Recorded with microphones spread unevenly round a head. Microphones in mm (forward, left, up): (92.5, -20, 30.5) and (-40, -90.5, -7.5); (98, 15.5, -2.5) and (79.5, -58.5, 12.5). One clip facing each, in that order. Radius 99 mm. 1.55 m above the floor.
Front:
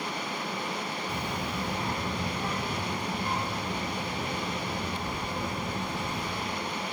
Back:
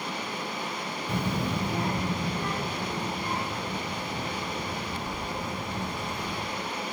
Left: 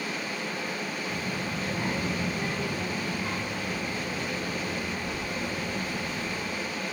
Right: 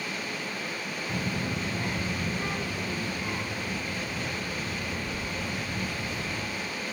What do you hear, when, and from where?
1.1 s a child speaking: 140° right, 0.6 m; by 6.4 s 105° left, 4 m